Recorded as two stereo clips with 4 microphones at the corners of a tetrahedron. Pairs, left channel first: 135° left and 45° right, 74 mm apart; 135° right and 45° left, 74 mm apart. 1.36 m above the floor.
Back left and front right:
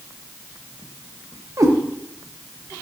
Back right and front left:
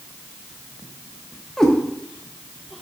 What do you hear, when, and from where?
1.6 s a cat meowing: 55° right, 0.7 m